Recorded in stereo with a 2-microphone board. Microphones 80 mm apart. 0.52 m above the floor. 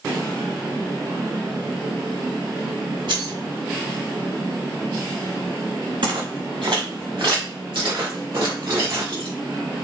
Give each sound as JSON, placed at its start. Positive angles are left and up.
{"t": 3.1, "sound": "keys jangling", "side_deg": -60, "distance_m": 1.4}
{"t": 6.0, "sound": "footsteps", "side_deg": -65, "distance_m": 2.5}